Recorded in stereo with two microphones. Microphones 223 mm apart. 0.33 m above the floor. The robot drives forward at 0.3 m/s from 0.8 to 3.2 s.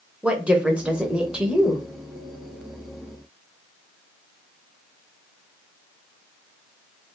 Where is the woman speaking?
5° right (ahead or behind), 0.9 m.